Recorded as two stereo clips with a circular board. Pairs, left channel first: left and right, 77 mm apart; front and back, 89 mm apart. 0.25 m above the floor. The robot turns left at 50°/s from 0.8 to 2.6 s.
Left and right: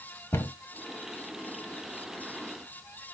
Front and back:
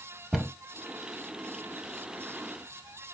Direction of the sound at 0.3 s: 100° left.